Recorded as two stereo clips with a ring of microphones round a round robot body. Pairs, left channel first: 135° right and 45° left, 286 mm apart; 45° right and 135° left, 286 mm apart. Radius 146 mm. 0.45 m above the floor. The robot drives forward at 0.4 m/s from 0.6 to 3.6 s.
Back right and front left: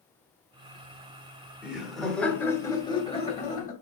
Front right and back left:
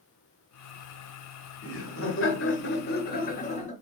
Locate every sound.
1.6 s laughter: 40° right, 1.3 m; by 3.7 s 95° right, 1.0 m